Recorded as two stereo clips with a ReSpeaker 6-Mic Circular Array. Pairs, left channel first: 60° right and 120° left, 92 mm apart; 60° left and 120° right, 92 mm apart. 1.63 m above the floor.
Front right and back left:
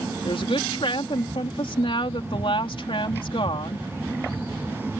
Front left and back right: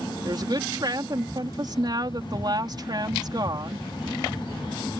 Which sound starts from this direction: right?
A woman speaking, at 0.2 s.